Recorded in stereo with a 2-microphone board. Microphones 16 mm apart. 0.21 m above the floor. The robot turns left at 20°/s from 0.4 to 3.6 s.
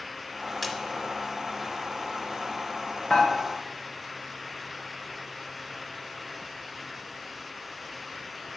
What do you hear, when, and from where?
0.6 s a splash: centre (ahead or behind), 0.7 m
3.1 s dishes clattering: 65° left (ahead or behind), 2 m